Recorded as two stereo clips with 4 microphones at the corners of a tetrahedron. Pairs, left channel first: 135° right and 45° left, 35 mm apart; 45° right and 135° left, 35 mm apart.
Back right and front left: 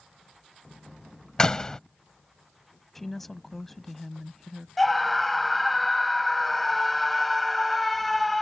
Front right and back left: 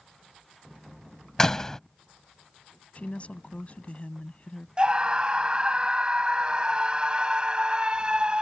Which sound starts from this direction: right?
A door slam, at 1.4 s.